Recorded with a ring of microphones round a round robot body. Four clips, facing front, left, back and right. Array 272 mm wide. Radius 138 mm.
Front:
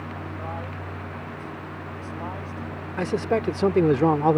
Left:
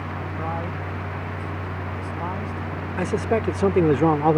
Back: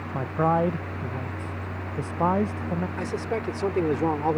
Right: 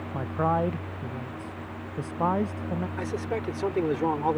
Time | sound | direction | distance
0.1 | a man speaking | 160° right | ?
3.0 | a man speaking | 55° left | ?